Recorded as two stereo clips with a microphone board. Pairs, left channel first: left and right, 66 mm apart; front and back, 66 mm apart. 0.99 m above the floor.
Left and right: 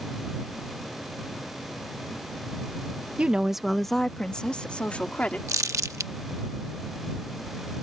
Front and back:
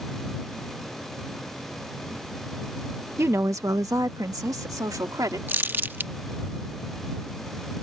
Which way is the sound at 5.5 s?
120° right.